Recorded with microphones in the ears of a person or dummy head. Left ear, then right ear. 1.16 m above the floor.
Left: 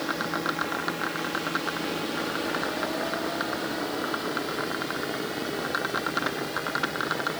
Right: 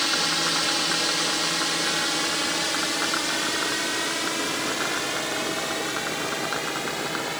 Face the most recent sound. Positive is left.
turn(degrees=-40)  # may be behind; listen again after turning